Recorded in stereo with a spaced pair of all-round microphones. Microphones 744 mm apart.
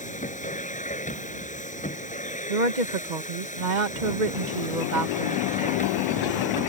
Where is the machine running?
10° left (ahead or behind).